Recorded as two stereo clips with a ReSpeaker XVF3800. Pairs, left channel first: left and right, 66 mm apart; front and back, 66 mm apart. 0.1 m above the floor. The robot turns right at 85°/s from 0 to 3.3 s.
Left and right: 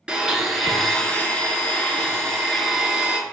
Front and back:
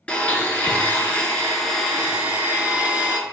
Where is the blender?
40° right, 0.6 m; by 3.2 s 135° right, 0.6 m.